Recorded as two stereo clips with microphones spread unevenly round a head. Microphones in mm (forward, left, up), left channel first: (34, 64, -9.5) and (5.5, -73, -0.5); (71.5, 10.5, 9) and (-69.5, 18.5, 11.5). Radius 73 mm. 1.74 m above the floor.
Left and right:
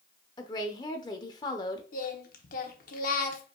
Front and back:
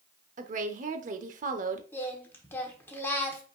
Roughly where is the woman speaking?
Behind left.